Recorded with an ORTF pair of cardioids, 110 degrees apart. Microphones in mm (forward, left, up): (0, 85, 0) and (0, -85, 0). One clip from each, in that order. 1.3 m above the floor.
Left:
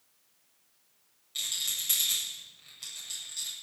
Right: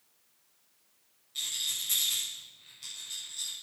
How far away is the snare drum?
No snare drum in this recording.